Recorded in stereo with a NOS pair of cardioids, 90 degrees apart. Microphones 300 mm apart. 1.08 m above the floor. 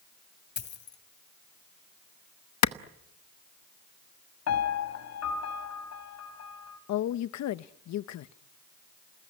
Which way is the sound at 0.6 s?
35° left.